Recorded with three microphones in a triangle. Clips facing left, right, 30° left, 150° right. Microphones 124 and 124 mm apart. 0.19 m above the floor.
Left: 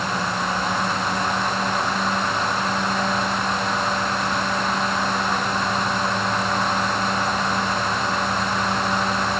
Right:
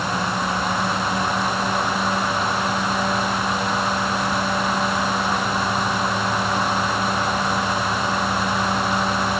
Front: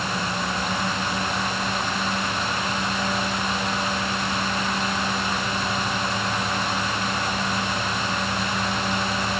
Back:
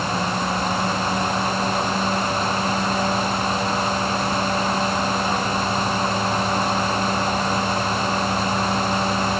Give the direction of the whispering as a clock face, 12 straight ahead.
I don't hear whispering.